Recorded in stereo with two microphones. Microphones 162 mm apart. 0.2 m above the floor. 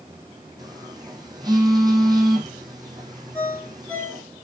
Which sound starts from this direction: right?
A phone buzzing, at 0.6 s.